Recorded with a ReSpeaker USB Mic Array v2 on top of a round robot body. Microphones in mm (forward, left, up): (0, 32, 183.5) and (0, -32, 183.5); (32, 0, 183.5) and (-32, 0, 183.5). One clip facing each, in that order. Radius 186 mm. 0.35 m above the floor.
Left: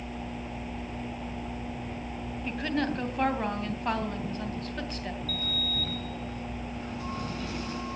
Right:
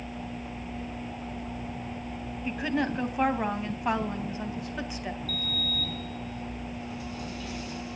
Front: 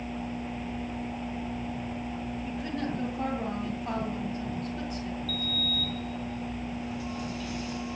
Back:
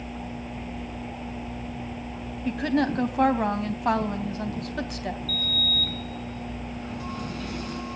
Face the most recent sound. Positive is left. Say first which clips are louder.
# even, back 2 dB
turn(degrees=140)